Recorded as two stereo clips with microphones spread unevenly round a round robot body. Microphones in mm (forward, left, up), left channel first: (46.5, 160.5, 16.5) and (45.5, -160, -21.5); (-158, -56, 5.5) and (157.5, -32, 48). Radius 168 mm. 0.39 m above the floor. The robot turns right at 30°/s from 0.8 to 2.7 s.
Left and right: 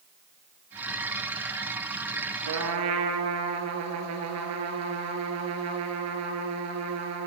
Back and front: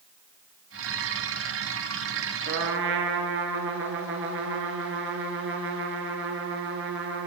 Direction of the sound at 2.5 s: 55° right.